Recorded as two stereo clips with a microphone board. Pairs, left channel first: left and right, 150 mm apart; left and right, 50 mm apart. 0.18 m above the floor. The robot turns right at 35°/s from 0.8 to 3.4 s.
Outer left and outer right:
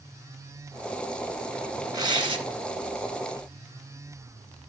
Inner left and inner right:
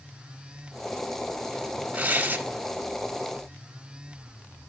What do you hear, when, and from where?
1.9 s tearing paper: 25° right (ahead or behind), 1.5 m; by 2.4 s 40° right (ahead or behind), 1.5 m